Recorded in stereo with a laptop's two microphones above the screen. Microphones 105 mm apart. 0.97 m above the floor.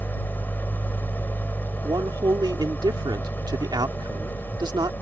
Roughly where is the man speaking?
Right.